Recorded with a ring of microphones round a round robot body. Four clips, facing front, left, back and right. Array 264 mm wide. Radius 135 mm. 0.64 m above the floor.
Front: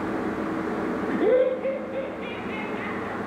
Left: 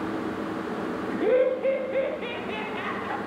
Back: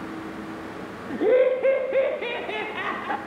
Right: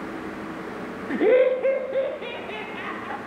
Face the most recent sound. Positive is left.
turn(degrees=175)